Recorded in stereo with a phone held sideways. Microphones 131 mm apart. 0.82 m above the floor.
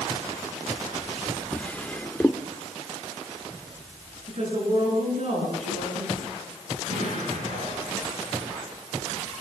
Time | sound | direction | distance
1.5 | a drawer | 10° left (ahead or behind) | 0.9 m
4.3 | a woman speaking | 55° right (ahead or behind) | 9 m
6.9 | an explosion | 75° right (ahead or behind) | 9.5 m